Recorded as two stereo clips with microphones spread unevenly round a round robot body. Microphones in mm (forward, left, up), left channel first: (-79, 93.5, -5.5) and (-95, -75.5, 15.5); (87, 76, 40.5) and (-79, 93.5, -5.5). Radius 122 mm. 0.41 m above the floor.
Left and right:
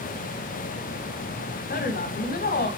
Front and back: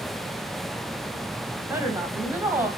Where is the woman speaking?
105° left, 3 m.